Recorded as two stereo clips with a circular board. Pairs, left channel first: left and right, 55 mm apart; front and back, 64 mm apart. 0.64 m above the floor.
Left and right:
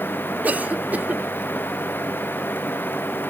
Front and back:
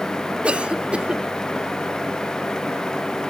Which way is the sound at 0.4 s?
125° right.